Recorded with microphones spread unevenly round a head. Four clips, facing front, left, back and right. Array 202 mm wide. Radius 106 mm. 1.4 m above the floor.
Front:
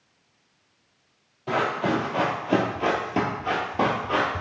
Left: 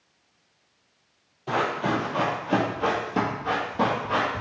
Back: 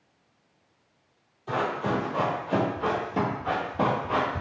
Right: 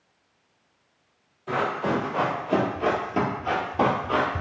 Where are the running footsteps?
20° left, 1.8 m; by 4.4 s 100° right, 1.4 m.